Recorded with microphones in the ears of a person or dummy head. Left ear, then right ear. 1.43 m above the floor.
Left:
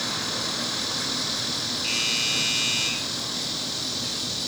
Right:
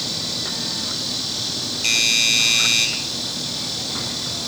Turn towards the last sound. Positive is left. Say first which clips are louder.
# right 9 dB
turn(degrees=-45)  # may be behind; listen again after turning